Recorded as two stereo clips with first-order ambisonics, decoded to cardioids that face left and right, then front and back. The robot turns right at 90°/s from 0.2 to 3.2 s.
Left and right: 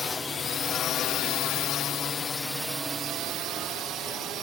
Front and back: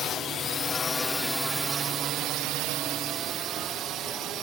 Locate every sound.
0.0 s a drone: 30° left; by 4.4 s 140° right